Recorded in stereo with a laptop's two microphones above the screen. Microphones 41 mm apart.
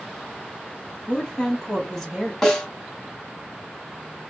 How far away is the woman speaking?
About 1.0 m.